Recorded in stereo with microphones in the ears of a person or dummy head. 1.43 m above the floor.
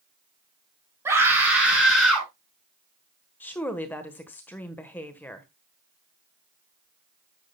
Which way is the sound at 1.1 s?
15° right (ahead or behind).